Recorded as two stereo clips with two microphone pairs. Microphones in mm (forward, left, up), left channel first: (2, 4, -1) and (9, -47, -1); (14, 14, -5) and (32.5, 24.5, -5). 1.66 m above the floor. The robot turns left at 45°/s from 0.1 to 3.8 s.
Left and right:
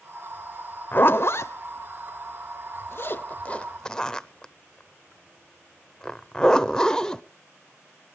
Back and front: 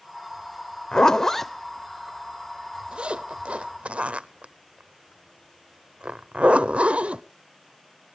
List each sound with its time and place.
0.9 s a zipper: 150° left, 0.7 m; by 7.2 s 20° left, 0.7 m